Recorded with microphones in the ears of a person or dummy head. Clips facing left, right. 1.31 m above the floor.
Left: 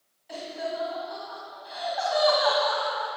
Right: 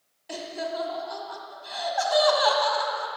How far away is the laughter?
About 1.5 m.